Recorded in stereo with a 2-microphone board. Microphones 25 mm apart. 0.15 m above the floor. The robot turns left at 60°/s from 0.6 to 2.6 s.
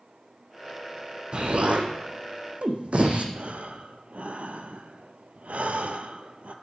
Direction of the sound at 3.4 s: 75° right (ahead or behind).